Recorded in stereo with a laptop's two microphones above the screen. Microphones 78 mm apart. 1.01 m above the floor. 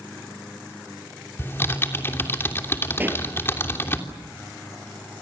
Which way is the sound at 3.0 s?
25° right (ahead or behind).